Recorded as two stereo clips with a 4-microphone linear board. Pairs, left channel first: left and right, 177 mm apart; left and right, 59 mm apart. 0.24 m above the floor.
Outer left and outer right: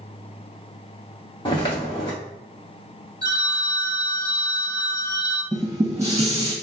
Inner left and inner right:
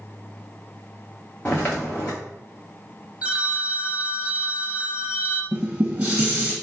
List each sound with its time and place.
1.4 s footsteps: 30° left (ahead or behind), 1.2 m
3.2 s a phone ringing: 20° right (ahead or behind), 0.8 m
5.5 s dishes clattering: 20° right (ahead or behind), 1.2 m